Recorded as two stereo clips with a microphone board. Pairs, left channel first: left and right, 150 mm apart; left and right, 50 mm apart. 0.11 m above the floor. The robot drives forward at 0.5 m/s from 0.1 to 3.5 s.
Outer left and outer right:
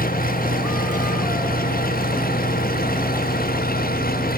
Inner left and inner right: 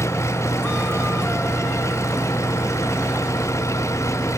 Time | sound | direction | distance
0.0 | an engine running | 70° left (ahead or behind) | ?